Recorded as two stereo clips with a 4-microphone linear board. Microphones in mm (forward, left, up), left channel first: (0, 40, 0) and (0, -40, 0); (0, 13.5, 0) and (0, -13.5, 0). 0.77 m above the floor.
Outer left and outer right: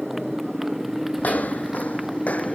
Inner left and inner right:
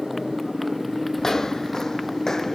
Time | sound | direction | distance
0.0 | a motorcycle | centre (ahead or behind) | ?
1.2 | footsteps | 20° left (ahead or behind) | ?